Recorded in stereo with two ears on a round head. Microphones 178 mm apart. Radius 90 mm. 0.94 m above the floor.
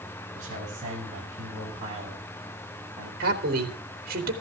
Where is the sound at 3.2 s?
50° right (ahead or behind), 3 m.